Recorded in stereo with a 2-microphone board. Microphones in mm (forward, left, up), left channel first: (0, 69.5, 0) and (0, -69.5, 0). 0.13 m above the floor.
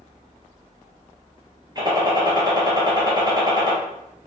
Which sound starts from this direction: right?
A gunshot, at 1.8 s.